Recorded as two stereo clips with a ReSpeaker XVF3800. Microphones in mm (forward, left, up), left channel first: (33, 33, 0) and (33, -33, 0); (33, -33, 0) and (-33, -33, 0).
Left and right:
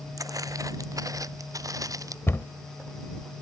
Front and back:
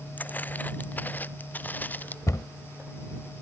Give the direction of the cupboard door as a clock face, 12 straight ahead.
11 o'clock.